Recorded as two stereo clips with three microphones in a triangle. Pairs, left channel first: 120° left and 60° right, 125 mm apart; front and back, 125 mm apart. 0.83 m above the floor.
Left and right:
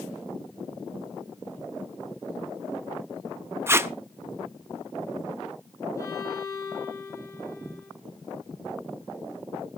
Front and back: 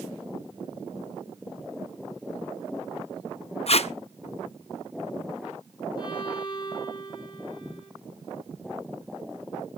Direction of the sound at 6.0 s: 55° left.